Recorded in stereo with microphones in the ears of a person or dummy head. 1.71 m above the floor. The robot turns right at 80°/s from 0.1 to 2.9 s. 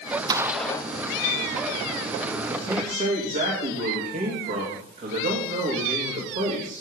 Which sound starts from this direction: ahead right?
A gunshot, at 0.3 s.